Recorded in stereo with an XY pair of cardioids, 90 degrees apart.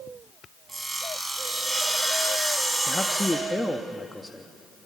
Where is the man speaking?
10° left, 1.3 m.